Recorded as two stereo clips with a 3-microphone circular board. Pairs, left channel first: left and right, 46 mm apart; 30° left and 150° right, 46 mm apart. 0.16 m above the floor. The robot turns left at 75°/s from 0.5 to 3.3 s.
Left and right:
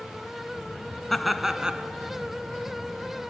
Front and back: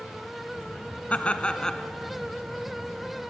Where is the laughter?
10° left, 1.2 m; by 1.9 s 45° right, 1.2 m.